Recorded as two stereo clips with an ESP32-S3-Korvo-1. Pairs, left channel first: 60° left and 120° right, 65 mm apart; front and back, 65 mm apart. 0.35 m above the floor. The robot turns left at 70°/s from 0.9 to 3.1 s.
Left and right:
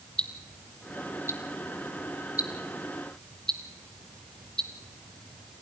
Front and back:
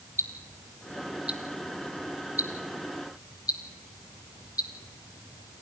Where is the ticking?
135° left, 1.9 m; by 5.6 s 20° right, 1.9 m.